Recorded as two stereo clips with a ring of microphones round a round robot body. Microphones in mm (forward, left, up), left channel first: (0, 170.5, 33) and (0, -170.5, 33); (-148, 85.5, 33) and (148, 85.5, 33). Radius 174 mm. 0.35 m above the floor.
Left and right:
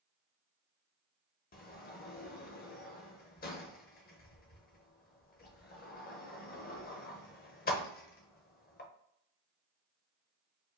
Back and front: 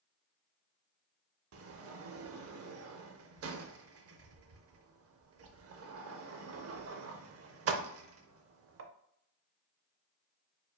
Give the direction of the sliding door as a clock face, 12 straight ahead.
11 o'clock.